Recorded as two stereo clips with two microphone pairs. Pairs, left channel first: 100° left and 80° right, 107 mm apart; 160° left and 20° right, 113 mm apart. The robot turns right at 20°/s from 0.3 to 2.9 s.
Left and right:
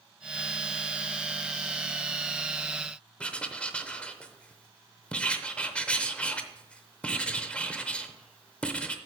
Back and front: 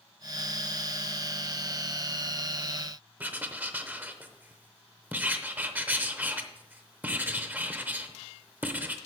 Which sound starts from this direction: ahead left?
Writing, at 3.2 s.